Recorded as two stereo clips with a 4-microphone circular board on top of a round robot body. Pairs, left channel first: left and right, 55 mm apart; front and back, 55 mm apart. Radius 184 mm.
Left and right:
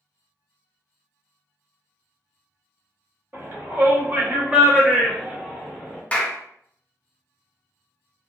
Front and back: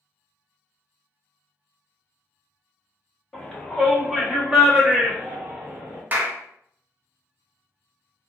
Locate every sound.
3.3 s a shout: 70° right, 1.7 m; by 6.0 s 175° right, 1.6 m
6.1 s a clap: 140° left, 0.8 m